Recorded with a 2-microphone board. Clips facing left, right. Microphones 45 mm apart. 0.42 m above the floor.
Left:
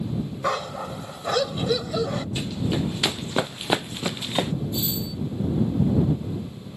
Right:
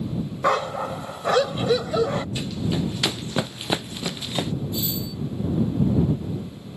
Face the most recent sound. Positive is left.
turn(degrees=0)  # may be behind; listen again after turning